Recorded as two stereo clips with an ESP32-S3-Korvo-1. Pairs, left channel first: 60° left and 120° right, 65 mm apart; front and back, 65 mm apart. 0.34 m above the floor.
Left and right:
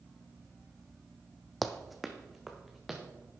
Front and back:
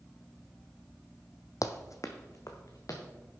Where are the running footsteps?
25° right, 0.9 m; by 3.0 s 35° right, 2 m.